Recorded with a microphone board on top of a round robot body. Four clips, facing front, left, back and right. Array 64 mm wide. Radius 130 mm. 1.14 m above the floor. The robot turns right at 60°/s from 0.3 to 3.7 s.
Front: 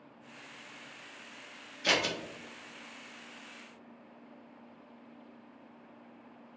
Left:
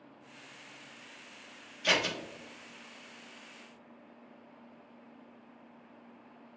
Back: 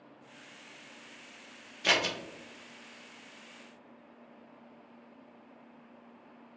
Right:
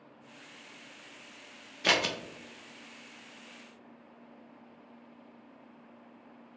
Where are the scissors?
100° right, 0.8 m; by 2.1 s 80° right, 0.8 m.